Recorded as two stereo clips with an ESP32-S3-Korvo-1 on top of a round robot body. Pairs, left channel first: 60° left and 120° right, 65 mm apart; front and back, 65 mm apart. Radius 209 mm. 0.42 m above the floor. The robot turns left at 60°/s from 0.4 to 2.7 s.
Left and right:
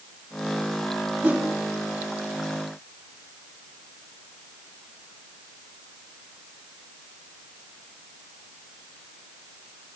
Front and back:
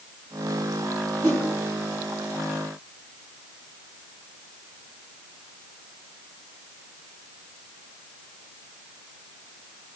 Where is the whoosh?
55° right, 5.5 m; by 1.4 s 70° right, 5.5 m.